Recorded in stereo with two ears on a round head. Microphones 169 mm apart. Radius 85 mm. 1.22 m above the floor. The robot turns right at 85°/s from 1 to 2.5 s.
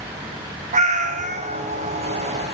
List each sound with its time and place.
0.7 s a cat meowing: 100° right, 0.6 m; by 1.6 s 50° right, 0.6 m